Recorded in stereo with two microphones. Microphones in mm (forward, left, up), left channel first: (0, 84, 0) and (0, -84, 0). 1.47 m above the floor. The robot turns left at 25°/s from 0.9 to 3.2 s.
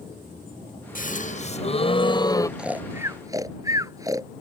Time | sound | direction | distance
0.9 | a gasp | 60° left | ?
2.6 | snoring | 5° right (ahead or behind) | ?